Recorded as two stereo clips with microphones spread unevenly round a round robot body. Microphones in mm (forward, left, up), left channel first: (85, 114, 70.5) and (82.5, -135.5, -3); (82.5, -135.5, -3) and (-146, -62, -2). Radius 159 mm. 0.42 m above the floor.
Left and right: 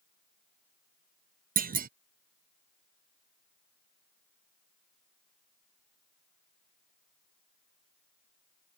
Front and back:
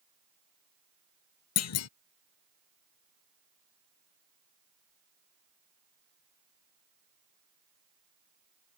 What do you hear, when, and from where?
1.6 s a clunk: 40° right